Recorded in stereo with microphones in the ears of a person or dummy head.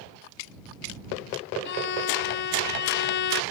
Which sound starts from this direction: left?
A violin, at 1.6 s.